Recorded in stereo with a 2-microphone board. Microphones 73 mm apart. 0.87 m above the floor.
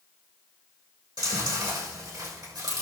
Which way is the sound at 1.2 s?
70° right (ahead or behind).